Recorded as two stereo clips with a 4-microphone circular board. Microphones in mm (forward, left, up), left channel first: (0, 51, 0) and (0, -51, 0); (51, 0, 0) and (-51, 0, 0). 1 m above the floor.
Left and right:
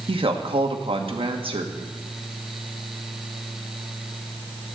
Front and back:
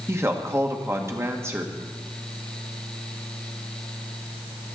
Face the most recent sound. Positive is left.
turn(degrees=-115)